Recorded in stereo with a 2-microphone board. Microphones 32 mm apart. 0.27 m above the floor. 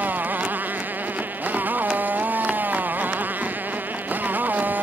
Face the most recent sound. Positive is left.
turn(degrees=-70)  # may be behind; listen again after turning